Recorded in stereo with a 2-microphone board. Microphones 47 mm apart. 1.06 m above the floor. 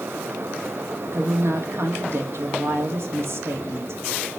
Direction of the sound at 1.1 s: 60° right (ahead or behind).